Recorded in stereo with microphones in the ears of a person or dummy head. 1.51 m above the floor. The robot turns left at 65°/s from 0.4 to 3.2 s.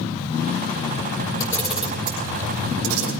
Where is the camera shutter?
20° left (ahead or behind), 5 m; by 3.1 s 85° right, 5 m.